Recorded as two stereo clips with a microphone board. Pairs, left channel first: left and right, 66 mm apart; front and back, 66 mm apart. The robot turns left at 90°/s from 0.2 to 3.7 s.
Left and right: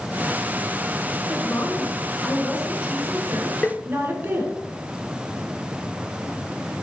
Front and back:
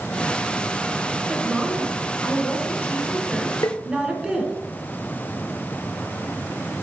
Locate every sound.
1.3 s a woman speaking: 110° left, 2.0 m; by 4.5 s 110° right, 2.0 m
3.6 s tapping: 20° left, 0.6 m; by 3.8 s 10° left, 0.6 m